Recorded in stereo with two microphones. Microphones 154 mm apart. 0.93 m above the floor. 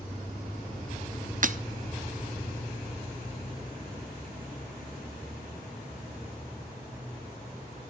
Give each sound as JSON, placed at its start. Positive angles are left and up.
{"t": 1.4, "sound": "breaking glass", "side_deg": -55, "distance_m": 0.5}